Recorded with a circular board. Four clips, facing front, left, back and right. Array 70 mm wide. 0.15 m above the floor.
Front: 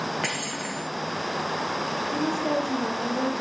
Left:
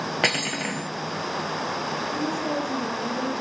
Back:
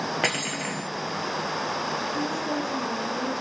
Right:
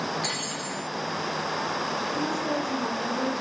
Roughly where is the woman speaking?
Ahead.